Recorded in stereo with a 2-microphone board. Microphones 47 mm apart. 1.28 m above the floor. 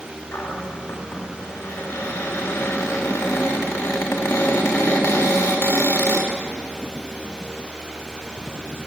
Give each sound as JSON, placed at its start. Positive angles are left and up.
{"t": 0.3, "sound": "a cupboard door", "side_deg": 85, "distance_m": 2.0}